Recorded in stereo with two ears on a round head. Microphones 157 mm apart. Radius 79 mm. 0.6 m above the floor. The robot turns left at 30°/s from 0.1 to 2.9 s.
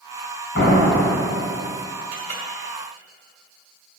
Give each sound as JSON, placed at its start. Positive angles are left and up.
{"t": 0.6, "sound": "a door slam", "azimuth_deg": 125, "distance_m": 3.0}
{"t": 2.1, "sound": "a clink", "side_deg": -55, "distance_m": 1.8}